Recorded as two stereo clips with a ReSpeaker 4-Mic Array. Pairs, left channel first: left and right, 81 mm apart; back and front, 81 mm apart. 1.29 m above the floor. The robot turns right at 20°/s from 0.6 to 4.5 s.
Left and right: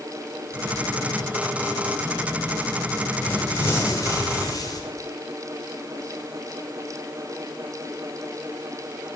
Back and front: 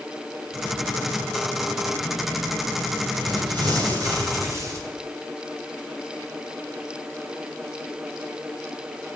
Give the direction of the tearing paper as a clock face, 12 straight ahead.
11 o'clock.